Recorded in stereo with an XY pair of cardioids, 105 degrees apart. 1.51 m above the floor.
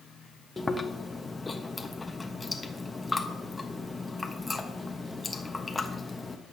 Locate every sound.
0.6 s chewing: 20° left, 1.2 m